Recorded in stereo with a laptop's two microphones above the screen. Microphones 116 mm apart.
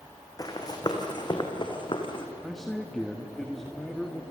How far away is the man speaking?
About 1.4 m.